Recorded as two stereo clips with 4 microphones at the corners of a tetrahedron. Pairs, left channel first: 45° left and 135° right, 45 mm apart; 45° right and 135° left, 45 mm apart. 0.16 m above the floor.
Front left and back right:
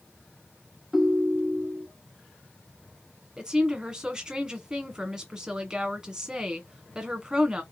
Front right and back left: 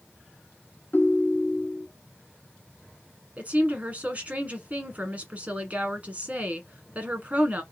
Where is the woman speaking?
160° left, 1.4 m.